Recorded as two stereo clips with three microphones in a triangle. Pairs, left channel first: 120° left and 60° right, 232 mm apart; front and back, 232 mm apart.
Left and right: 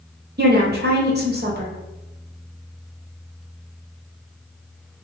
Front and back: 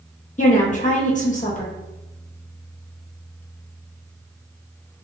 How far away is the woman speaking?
About 0.8 m.